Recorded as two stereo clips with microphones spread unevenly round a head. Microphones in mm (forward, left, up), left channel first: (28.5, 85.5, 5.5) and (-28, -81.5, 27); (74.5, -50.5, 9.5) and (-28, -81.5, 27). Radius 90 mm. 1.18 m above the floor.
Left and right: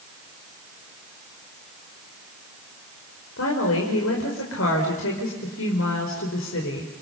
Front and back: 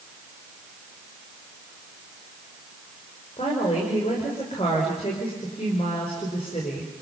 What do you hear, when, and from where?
3.4 s a woman speaking: 75° left, 4.5 m